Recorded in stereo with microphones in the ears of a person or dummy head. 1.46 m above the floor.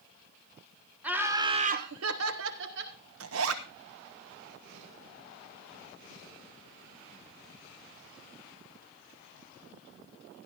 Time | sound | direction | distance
1.0 | laughter | 10° right (ahead or behind) | 1.6 m
3.2 | a zipper | 80° right | 1.1 m